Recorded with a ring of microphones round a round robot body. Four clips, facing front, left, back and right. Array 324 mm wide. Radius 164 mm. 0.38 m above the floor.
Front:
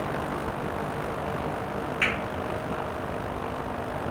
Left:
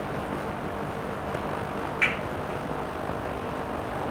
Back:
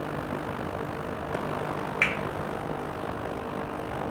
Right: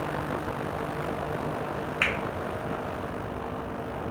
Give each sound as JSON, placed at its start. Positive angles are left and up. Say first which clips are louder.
{"t": 2.0, "sound": "a finger snap", "louder": "left 1 dB, front 1 dB", "azimuth_deg": -105, "distance_m": 1.8}